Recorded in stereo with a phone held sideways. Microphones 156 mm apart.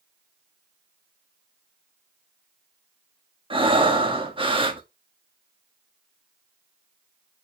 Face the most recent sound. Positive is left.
turn(degrees=-35)  # may be behind; listen again after turning